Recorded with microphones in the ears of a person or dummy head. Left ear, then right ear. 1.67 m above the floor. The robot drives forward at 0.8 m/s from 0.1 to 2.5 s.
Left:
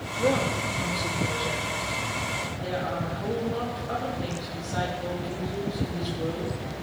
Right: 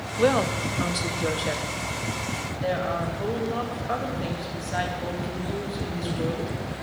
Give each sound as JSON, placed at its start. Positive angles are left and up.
{"t": 0.2, "sound": "a woman speaking", "side_deg": -60, "distance_m": 1.0}